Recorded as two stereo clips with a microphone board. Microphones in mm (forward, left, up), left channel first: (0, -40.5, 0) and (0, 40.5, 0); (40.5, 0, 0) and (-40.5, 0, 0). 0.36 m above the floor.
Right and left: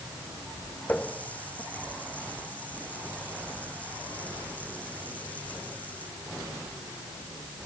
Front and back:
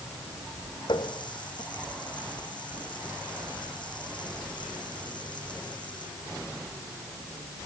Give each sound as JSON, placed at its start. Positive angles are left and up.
{"t": 0.9, "sound": "a running tap", "azimuth_deg": -20}